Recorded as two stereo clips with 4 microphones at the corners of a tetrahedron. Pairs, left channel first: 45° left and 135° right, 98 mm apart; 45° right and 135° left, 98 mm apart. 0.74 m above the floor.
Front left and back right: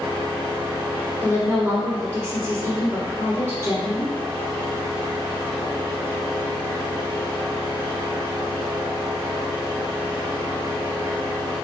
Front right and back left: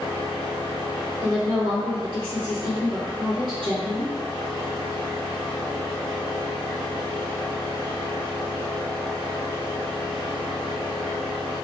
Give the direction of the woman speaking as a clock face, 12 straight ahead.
6 o'clock.